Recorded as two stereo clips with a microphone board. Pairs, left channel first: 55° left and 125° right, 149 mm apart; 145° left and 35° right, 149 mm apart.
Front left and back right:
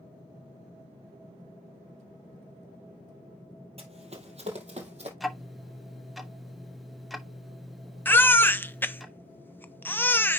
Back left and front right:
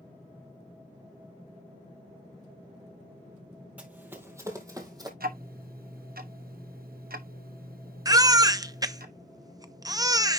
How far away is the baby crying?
About 0.6 m.